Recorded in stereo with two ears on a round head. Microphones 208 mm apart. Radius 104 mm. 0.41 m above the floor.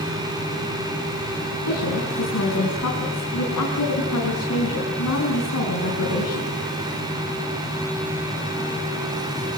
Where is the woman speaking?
75° left (ahead or behind), 5 m.